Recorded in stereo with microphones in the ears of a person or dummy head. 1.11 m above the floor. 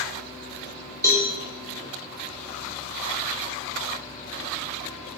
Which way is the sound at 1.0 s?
20° left (ahead or behind).